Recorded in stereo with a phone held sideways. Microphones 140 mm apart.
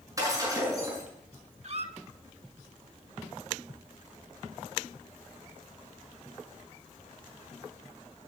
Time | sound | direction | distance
0.2 | breaking glass | 25° right (ahead or behind) | 7 m
1.6 | a squeak | 50° right (ahead or behind) | 0.8 m